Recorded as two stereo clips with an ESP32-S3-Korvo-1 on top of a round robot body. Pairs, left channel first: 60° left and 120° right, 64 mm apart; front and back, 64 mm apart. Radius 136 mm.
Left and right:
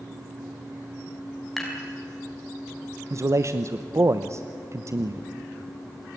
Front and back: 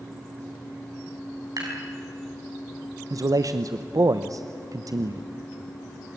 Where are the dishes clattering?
145° left, 5.5 m.